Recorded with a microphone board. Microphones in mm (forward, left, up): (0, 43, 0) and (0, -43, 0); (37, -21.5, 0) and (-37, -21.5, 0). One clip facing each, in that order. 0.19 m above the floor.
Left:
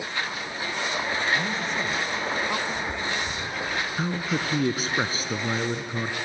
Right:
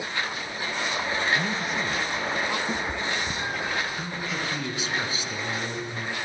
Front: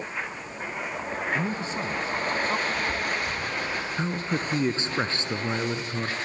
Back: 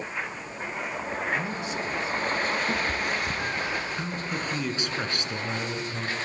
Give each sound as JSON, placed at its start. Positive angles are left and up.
{"t": 1.4, "sound": "a man speaking", "azimuth_deg": -20, "distance_m": 1.5}
{"t": 2.7, "sound": "a cat meowing", "azimuth_deg": -130, "distance_m": 3.0}
{"t": 4.0, "sound": "a man speaking", "azimuth_deg": 55, "distance_m": 1.8}